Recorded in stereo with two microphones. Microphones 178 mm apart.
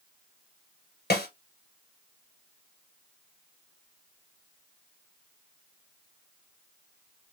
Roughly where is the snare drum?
Left.